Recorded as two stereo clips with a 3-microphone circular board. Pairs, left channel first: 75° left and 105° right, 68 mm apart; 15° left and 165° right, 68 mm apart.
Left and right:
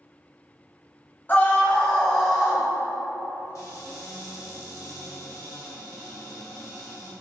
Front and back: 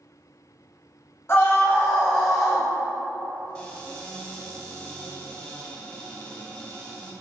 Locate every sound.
1.3 s a scream: 30° left, 1.8 m; by 2.6 s 135° right, 1.4 m
3.5 s a cupboard door: 85° left, 1.2 m